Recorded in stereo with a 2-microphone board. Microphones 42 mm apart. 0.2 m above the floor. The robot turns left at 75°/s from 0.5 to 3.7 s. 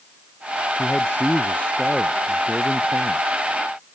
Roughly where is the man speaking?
Left.